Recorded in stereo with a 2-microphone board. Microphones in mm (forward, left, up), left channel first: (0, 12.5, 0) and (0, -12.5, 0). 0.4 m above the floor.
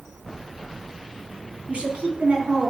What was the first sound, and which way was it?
A woman speaking, 60° right (ahead or behind).